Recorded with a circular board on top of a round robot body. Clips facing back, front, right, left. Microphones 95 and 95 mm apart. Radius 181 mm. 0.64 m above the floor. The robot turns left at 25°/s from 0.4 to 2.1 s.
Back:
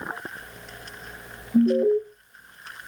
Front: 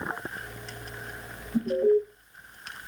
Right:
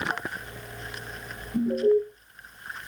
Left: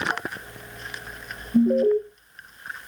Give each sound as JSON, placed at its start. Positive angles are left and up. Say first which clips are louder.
{"t": 1.5, "sound": "an alarm", "louder": "back 3 dB, left 3 dB", "azimuth_deg": 135, "distance_m": 1.7}